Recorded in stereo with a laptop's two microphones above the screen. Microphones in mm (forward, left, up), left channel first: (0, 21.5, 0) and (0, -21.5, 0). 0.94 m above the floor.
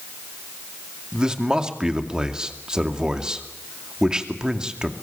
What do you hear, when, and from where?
1.1 s a man speaking: 20° right (ahead or behind), 2.5 m